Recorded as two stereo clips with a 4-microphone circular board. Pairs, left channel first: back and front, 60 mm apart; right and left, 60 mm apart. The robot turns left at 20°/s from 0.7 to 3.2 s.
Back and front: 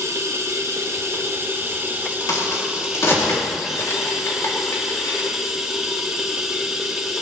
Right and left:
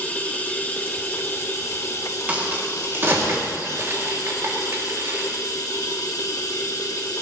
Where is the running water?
30° right, 1.7 m; by 7.2 s 80° right, 1.7 m.